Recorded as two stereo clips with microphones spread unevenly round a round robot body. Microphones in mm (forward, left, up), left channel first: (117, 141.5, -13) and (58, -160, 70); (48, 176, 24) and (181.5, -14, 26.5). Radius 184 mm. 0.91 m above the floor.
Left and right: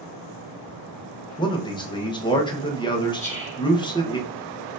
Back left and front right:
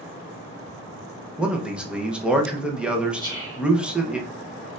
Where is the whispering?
15° left, 2 m.